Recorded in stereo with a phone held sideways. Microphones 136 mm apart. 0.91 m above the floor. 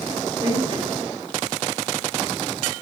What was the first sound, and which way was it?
A man speaking, 55° right (ahead or behind).